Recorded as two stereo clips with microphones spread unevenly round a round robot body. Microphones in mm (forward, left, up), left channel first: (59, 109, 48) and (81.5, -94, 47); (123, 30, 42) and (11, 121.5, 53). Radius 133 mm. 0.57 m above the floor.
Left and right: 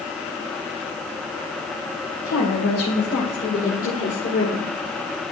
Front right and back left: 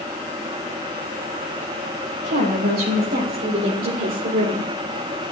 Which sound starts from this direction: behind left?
A woman speaking, at 2.2 s.